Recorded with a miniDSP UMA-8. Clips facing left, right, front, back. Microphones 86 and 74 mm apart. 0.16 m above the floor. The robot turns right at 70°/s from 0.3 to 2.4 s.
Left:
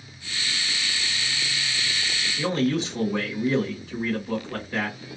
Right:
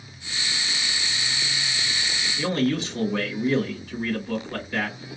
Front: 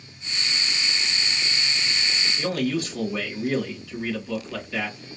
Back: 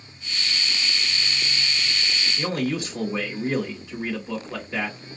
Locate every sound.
2.4 s a man speaking: 140° left, 1.5 m